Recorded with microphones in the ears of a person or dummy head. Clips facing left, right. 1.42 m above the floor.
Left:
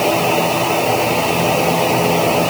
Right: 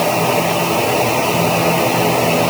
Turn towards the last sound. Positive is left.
No sound to turn to.